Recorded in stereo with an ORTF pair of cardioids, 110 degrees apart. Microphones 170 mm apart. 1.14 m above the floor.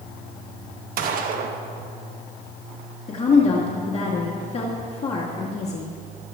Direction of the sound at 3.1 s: 40° left.